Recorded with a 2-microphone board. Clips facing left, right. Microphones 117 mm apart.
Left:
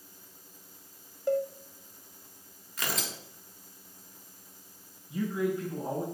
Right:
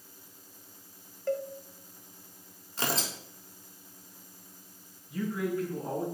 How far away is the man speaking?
About 3 m.